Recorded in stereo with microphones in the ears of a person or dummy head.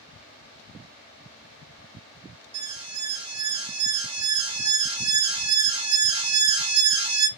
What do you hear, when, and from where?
2.5 s an alarm: 25° right (ahead or behind), 0.9 m